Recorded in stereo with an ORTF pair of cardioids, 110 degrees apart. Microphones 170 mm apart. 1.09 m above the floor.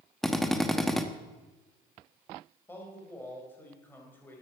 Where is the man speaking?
15° left, 4.5 m.